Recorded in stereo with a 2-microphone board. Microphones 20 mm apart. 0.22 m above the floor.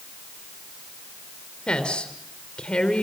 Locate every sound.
1.7 s a woman speaking: 50° left (ahead or behind), 4 m